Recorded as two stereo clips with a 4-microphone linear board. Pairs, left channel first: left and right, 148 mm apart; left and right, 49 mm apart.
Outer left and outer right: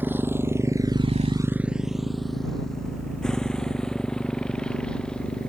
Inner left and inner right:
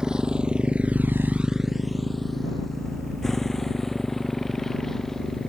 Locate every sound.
0.0 s a motorcycle: 15° right (ahead or behind); by 5.5 s 5° left (ahead or behind)